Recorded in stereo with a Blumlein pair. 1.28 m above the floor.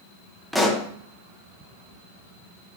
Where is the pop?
Straight ahead, 1.1 m.